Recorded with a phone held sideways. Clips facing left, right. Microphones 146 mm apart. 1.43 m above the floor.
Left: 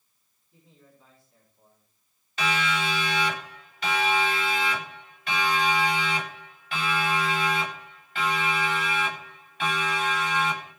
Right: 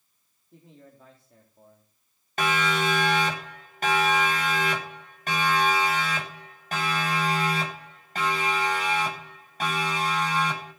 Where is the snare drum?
I don't hear a snare drum.